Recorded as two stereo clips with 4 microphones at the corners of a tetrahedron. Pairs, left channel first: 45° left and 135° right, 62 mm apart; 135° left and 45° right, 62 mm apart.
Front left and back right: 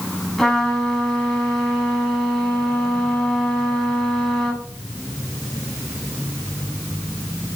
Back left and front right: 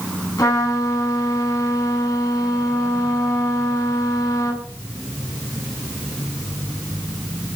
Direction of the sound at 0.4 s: 130° left.